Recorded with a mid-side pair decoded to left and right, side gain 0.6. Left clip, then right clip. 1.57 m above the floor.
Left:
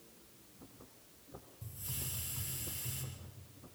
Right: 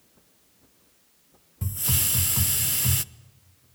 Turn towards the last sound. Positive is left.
turn(degrees=-70)